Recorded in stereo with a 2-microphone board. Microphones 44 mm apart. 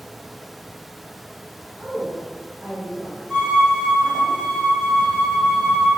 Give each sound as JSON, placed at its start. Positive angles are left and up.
{"t": 1.8, "sound": "a woman speaking", "side_deg": -20, "distance_m": 1.5}
{"t": 3.3, "sound": "a violin", "side_deg": -15, "distance_m": 1.0}